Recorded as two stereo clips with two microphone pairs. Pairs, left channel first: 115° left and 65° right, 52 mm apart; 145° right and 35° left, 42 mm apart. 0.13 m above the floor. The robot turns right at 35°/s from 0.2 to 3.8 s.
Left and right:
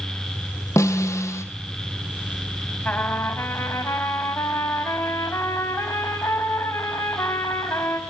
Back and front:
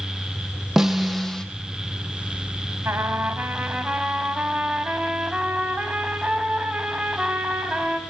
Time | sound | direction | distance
0.8 | a snare drum | 115° left | 1.7 m
2.9 | a trumpet | 55° left | 3.5 m